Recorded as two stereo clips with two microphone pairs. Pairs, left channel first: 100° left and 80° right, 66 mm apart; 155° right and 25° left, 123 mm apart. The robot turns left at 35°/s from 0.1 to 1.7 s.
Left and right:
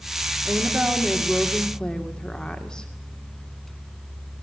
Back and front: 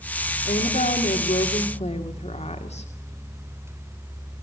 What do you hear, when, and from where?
0.5 s a woman speaking: 135° right, 2.5 m; by 2.9 s straight behind, 2.5 m